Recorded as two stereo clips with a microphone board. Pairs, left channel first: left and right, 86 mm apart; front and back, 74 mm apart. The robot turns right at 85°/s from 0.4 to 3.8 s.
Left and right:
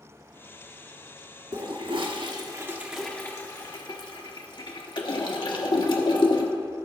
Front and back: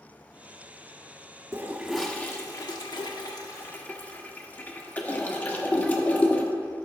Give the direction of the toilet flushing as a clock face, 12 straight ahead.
4 o'clock.